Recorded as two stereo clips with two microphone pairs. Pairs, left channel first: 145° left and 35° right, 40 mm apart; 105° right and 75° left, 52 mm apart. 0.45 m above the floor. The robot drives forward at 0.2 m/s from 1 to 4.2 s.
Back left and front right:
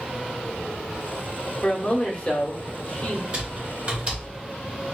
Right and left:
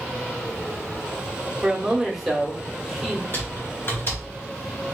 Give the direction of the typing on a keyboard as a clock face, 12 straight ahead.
3 o'clock.